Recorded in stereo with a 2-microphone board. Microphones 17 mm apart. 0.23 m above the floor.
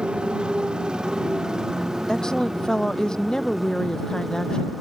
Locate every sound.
0.0 s a motorcycle: 80° right; by 4.8 s 5° right (ahead or behind)
2.1 s a woman speaking: 40° left (ahead or behind)